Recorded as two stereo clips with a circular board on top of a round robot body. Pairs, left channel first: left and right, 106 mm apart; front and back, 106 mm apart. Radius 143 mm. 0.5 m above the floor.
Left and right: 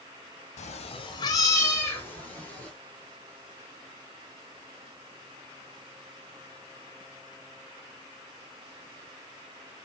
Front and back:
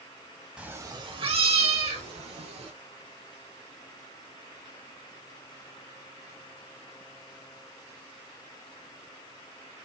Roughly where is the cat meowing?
Left.